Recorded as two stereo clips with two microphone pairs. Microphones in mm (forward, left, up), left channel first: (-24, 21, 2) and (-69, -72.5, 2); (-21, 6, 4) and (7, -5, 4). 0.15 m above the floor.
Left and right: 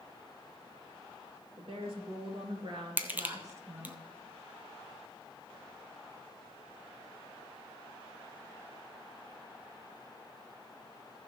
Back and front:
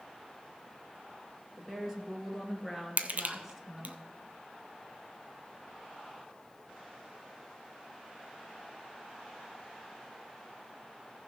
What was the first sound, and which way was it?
A woman speaking, 100° right.